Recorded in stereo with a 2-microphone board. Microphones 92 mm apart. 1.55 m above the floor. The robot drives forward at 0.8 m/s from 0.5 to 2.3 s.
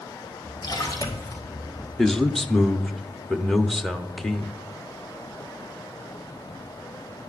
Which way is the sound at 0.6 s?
50° left (ahead or behind).